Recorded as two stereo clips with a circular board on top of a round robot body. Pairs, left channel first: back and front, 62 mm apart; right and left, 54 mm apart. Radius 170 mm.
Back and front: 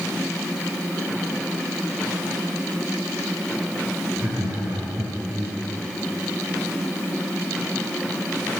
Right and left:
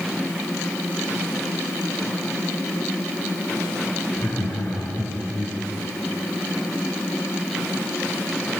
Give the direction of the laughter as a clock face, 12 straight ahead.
2 o'clock.